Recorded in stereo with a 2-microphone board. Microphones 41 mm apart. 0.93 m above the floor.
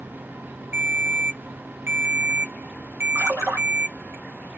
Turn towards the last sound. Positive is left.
turn(degrees=-85)